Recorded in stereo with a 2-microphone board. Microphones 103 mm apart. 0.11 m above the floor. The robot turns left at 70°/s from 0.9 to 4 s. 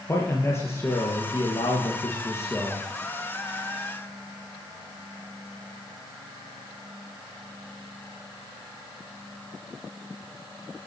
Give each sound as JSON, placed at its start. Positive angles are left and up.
{"t": 0.1, "sound": "a man speaking", "azimuth_deg": 150, "distance_m": 3.0}